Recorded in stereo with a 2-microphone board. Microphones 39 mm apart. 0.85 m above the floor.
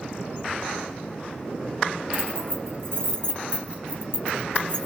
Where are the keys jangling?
80° right, 1.5 m.